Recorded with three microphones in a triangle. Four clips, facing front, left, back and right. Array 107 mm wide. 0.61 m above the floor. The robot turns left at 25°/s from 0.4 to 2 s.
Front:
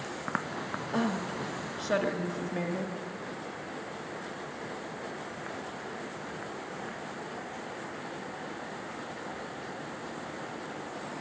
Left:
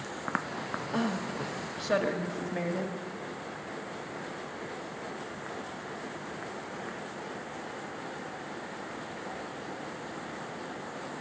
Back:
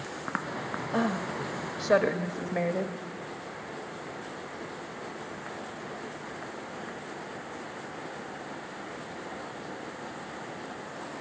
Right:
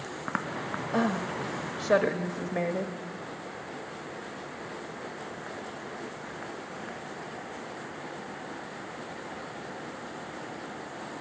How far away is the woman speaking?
About 0.9 m.